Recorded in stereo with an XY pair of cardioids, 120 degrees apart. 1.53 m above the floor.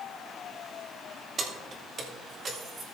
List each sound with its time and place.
1.4 s keys jangling: 40° right, 2 m